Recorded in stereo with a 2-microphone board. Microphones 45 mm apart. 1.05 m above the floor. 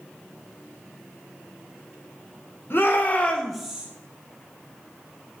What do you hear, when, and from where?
2.7 s a shout: 55° left (ahead or behind), 1.2 m; by 3.9 s 25° right (ahead or behind), 0.8 m